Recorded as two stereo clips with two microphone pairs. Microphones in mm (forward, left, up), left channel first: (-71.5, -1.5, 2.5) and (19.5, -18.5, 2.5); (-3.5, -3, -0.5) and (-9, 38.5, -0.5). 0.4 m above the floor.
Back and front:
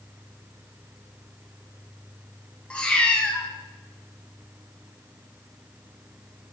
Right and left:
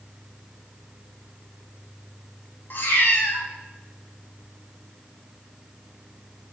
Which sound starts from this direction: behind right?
A cat meowing, at 2.7 s.